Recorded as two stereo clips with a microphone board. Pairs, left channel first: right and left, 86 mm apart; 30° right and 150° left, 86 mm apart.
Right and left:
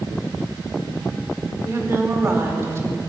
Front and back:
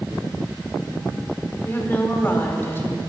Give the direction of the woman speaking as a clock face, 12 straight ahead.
11 o'clock.